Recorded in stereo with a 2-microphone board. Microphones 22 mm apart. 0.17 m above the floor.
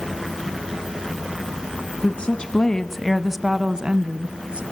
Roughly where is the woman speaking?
Left.